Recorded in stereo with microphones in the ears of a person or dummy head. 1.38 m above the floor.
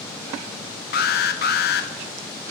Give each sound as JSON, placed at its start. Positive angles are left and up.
{"t": 0.9, "sound": "an alarm", "side_deg": 45, "distance_m": 1.3}